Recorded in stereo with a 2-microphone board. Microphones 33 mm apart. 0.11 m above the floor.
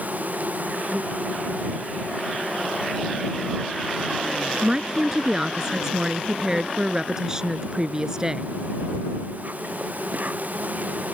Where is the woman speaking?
20° right (ahead or behind).